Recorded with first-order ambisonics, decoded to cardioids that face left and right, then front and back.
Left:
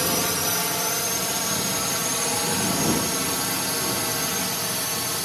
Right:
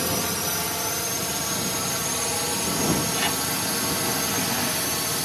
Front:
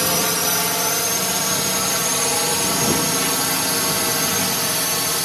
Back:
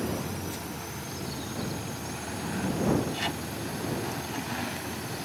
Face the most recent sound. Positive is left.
turn(degrees=-5)